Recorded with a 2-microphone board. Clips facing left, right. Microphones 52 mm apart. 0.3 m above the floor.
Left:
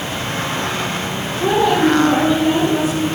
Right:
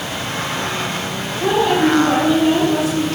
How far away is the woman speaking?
About 5 m.